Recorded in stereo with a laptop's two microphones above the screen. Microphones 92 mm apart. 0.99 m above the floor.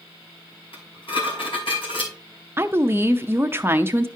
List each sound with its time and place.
0.7 s dishes clattering: 75° left (ahead or behind), 3 m
2.6 s a woman speaking: 25° right (ahead or behind), 0.7 m